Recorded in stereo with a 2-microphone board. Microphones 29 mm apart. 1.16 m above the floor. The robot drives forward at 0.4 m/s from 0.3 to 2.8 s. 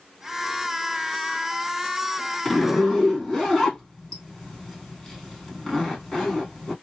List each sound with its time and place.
2.5 s a zipper: 5° left (ahead or behind), 1.9 m